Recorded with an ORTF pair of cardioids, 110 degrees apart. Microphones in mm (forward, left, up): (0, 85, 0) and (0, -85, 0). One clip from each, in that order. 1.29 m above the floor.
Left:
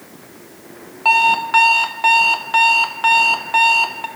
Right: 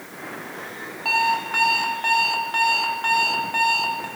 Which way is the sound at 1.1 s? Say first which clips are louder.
Left 7 dB; 40° left.